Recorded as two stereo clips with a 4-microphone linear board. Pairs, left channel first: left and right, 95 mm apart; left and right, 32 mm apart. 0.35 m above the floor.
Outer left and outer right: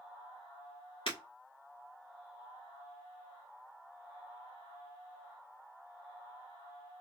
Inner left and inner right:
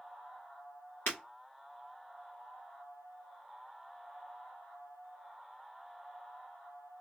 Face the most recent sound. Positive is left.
turn(degrees=70)  # may be behind; listen again after turning